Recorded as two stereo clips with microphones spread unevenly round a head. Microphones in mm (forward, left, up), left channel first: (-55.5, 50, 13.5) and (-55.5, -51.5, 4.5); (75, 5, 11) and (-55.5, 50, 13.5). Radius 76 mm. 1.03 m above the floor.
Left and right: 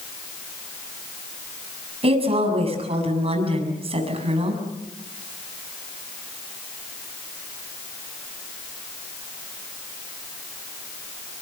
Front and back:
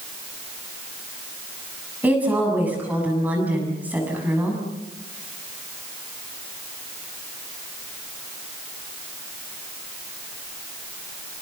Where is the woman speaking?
120° right, 7 m.